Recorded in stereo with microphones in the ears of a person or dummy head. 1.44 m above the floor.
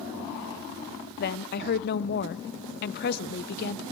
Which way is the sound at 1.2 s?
50° left (ahead or behind).